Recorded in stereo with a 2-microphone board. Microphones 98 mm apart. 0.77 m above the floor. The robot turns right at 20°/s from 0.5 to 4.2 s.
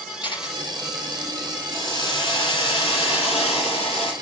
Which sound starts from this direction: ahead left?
A hiss, at 1.7 s.